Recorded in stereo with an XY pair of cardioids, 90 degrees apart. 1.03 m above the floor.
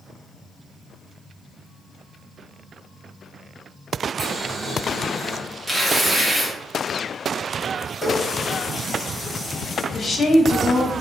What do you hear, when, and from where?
4.2 s boiling: 20° right, 1.4 m
5.7 s tearing paper: 10° right, 1.0 m
8.0 s a running tap: 10° left, 1.6 m
9.9 s a woman speaking: 45° left, 0.8 m